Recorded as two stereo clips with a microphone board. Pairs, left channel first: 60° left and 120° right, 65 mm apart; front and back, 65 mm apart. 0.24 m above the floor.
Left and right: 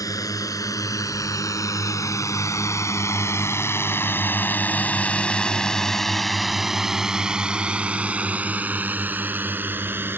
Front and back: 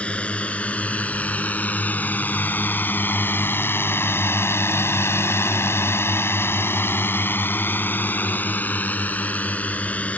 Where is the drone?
70° left; by 10.2 s 65° right.